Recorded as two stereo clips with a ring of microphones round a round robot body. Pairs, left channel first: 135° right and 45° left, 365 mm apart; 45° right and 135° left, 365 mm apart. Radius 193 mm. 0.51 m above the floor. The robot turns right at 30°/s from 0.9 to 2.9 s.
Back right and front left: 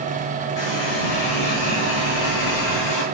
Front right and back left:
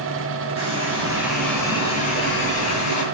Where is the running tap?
150° right, 8 m; by 3.0 s 90° right, 8 m.